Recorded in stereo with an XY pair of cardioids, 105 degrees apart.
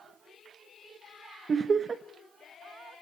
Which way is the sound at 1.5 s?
40° right.